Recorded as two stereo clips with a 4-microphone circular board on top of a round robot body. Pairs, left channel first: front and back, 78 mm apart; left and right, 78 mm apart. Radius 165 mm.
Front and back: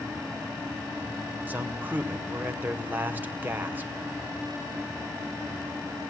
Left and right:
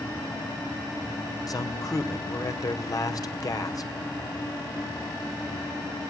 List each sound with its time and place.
1.5 s a man speaking: 120° left, 2.5 m